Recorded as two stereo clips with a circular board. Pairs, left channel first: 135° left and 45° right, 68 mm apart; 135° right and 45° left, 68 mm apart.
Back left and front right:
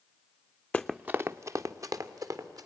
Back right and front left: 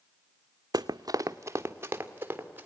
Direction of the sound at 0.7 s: 60° left.